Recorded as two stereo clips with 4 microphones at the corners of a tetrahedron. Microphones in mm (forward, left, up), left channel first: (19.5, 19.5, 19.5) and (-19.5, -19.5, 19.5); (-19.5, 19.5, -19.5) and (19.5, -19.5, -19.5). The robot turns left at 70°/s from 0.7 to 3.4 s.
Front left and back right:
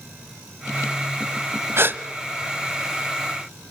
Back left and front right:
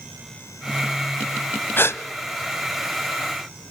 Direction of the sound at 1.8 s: 175° right.